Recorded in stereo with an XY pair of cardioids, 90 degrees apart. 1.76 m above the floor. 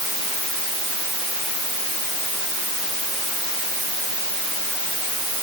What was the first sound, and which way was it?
Only background noise.